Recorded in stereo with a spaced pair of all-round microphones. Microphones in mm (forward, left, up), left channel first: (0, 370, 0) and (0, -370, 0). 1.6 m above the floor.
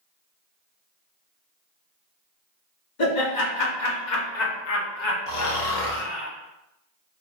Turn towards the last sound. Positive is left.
turn(degrees=60)  # may be behind; listen again after turning